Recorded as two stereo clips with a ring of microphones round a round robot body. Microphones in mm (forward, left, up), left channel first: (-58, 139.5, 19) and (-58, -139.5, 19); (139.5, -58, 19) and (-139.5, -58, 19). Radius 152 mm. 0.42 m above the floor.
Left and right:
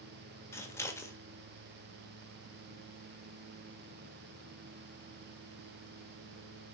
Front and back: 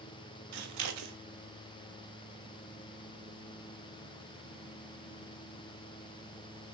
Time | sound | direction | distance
0.5 | scissors | 170° left | 0.7 m